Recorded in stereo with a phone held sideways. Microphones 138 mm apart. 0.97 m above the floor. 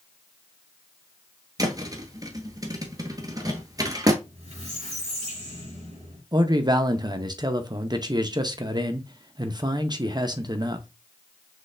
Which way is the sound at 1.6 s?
30° right (ahead or behind).